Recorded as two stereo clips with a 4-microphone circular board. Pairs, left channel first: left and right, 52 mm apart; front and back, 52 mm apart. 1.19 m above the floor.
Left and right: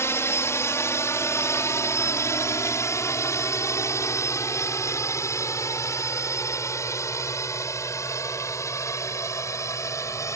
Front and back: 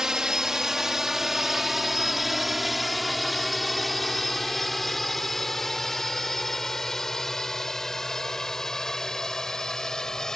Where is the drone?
105° left; by 10.4 s 80° left.